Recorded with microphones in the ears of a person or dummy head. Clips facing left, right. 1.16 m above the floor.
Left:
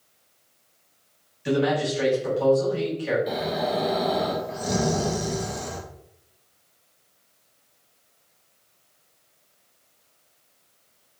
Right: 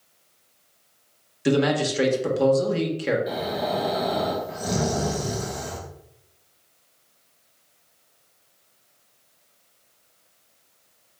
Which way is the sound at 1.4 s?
60° right (ahead or behind).